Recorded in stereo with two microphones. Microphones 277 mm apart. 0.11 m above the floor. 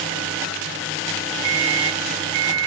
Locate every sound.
1.4 s a microwave: 20° right (ahead or behind), 2.5 m